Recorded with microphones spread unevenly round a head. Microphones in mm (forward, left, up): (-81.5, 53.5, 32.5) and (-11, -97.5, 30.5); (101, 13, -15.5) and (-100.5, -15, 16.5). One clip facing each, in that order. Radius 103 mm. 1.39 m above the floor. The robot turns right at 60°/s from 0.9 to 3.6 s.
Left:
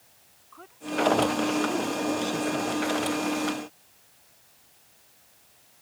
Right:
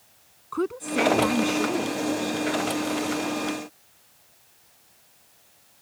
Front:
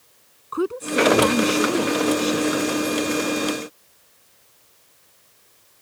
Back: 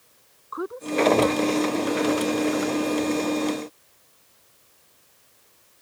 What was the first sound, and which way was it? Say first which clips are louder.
A woman speaking: right 6 dB, front 4 dB; 40° right.